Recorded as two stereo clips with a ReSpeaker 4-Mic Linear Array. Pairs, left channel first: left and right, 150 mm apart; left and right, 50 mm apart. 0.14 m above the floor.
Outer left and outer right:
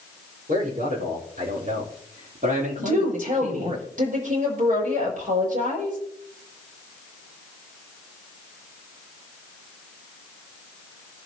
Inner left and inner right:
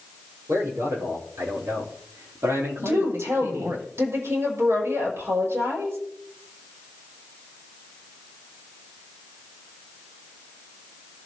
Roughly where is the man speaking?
Right.